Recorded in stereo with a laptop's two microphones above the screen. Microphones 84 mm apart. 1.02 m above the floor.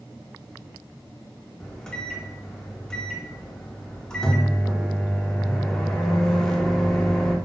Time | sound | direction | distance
1.6 | a microwave | 5° left (ahead or behind) | 0.7 m